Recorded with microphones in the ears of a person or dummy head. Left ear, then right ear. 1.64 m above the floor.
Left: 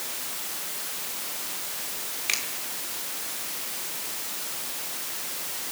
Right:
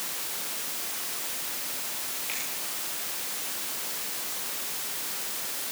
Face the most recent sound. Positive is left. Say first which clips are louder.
# left 9 dB
turn(degrees=55)  # may be behind; listen again after turning